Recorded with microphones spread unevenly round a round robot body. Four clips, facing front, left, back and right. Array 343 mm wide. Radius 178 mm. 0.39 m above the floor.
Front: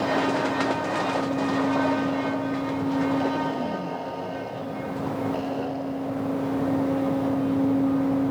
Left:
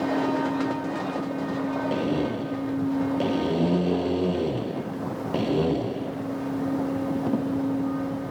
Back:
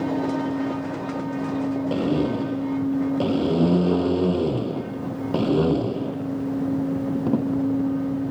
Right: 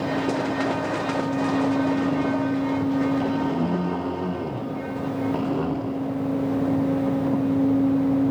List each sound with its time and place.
1.9 s a blender: 175° left